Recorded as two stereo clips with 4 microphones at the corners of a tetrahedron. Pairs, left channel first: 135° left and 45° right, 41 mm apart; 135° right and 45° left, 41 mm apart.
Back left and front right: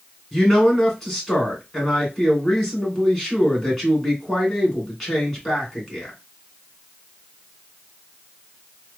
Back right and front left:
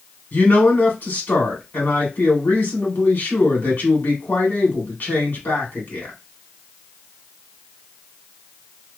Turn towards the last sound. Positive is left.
turn(degrees=-145)